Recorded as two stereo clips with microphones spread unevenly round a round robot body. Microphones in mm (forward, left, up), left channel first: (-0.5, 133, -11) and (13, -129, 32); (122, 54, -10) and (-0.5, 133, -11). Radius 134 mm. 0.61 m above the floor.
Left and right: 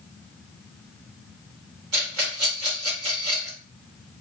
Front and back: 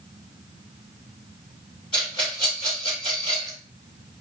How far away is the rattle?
About 1.6 m.